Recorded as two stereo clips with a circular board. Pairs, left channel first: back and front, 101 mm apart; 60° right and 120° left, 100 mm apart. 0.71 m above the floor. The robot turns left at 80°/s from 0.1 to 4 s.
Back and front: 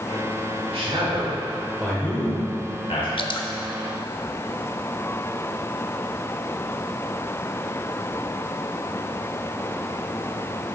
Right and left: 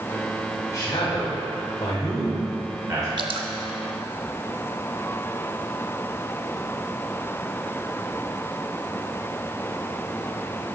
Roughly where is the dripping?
Behind left.